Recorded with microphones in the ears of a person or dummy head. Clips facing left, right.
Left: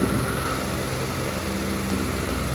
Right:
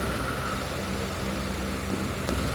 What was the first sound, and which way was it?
Only background noise.